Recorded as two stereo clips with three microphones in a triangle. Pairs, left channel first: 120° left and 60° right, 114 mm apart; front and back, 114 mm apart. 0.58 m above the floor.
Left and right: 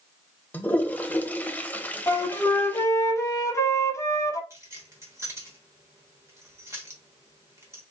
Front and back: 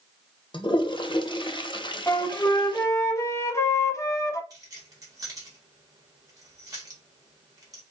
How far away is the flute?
About 0.8 m.